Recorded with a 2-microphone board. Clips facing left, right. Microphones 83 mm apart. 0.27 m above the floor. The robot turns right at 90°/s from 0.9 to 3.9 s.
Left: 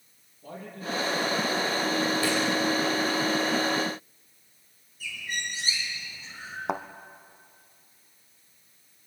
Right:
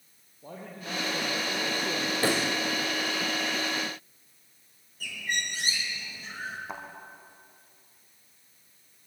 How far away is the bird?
About 5.5 m.